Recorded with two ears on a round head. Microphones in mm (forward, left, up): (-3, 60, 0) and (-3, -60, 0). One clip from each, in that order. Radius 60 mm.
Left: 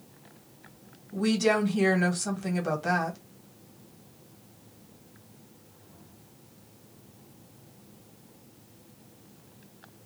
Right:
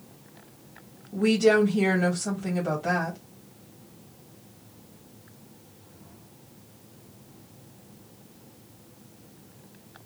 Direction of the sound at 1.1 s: 35° left (ahead or behind).